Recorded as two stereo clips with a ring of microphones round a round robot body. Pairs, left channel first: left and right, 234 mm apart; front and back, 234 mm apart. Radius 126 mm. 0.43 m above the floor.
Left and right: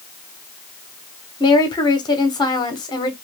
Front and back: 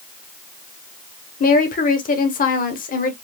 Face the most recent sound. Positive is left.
turn(degrees=25)